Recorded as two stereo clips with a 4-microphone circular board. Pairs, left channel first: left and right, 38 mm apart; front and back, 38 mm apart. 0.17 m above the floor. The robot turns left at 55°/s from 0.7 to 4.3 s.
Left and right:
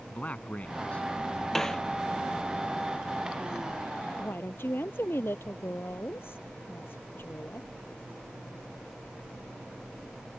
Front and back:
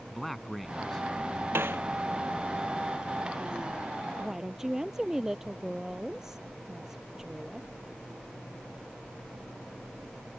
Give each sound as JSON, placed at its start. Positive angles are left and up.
{"t": 0.1, "sound": "a man speaking", "azimuth_deg": 85}
{"t": 1.6, "sound": "a snare drum", "azimuth_deg": 175}
{"t": 4.2, "sound": "a woman speaking", "azimuth_deg": 105}